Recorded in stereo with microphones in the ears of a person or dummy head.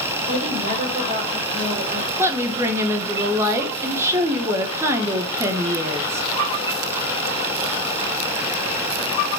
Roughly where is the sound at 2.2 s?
Centre.